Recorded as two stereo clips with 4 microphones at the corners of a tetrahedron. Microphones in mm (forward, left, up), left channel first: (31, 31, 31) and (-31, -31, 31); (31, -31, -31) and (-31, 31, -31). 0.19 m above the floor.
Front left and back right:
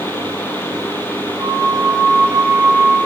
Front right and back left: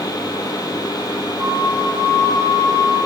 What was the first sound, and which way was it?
A flute, 160° left.